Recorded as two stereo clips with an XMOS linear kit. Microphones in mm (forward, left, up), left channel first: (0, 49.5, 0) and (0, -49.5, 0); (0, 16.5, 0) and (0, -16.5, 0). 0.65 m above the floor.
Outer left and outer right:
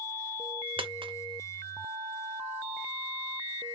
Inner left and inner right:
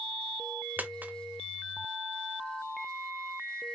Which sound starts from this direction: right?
A dropped coin, at 0.8 s.